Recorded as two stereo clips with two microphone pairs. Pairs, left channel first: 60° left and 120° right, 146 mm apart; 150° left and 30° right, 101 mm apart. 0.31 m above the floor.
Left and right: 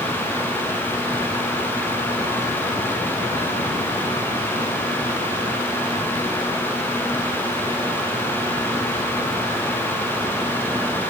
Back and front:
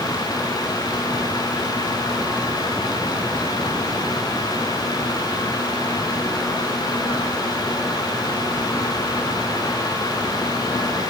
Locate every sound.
Only background noise.